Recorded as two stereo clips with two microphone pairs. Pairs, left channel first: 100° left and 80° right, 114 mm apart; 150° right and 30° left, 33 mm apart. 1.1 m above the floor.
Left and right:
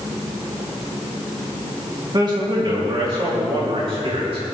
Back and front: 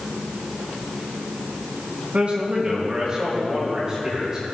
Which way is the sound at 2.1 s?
25° right.